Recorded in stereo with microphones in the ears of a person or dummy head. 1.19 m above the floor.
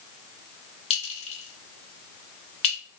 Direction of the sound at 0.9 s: 35° left (ahead or behind).